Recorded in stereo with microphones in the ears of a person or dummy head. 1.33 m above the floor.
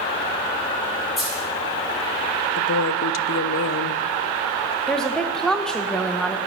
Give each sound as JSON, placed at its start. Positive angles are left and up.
{"t": 1.2, "sound": "a dropped coin", "side_deg": 0, "distance_m": 2.0}
{"t": 2.6, "sound": "a woman speaking", "side_deg": 70, "distance_m": 0.5}
{"t": 4.9, "sound": "a woman speaking", "side_deg": 0, "distance_m": 0.6}